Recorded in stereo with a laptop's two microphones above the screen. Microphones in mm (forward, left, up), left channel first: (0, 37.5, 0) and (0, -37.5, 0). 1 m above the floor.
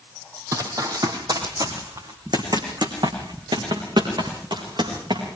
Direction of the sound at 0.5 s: 45° right (ahead or behind).